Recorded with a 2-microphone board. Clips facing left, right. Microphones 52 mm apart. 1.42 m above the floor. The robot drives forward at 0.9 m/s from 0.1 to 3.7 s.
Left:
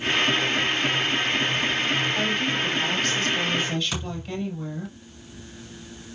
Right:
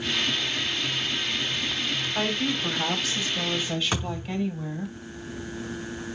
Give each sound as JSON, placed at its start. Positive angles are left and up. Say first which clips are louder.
{"t": 2.1, "sound": "a woman speaking", "louder": "left 2 dB", "side_deg": -15, "distance_m": 5.0}
{"t": 3.9, "sound": "a thud", "louder": "right 2 dB", "side_deg": -30, "distance_m": 6.0}